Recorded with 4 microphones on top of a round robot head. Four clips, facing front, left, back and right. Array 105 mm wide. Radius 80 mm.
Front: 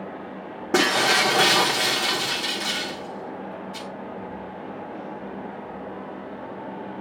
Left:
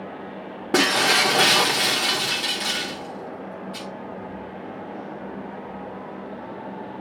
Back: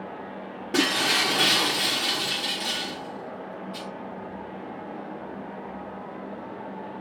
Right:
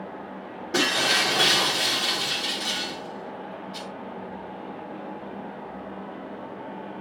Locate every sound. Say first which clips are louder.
0.7 s breaking glass: left 5 dB, front 5 dB; 45° left, 1.5 m